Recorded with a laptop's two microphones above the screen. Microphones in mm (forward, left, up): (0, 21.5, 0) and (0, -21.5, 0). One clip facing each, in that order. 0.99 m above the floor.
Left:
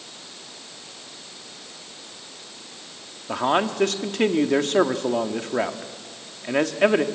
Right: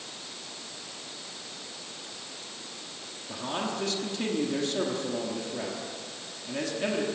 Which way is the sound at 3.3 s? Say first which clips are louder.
Left 11 dB; 70° left (ahead or behind).